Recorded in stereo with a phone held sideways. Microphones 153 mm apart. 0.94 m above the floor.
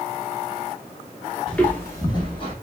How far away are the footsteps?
About 0.9 m.